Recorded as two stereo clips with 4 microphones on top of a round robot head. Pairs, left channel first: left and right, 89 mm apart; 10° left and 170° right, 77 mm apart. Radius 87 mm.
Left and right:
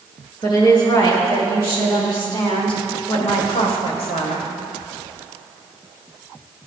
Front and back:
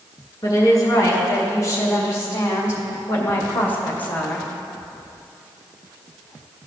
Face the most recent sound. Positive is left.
turn(degrees=90)